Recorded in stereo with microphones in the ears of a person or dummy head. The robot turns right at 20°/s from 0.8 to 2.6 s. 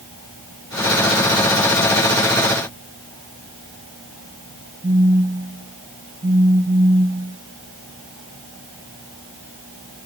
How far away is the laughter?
I don't hear laughter.